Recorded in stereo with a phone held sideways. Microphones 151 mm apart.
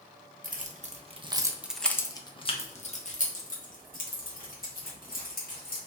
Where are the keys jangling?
60° right (ahead or behind), 0.8 m; by 5.8 s 70° left (ahead or behind), 2 m.